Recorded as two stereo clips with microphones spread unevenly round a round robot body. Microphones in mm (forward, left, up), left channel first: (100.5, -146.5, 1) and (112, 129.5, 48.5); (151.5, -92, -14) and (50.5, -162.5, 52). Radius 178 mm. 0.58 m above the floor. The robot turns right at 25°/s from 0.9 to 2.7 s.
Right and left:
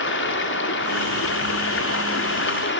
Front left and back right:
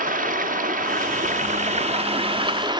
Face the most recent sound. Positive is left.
turn(degrees=-70)